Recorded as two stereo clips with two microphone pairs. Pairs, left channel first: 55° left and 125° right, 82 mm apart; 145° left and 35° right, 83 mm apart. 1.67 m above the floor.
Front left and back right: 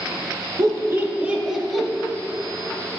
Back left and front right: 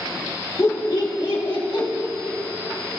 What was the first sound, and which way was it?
Laughter, 165° right.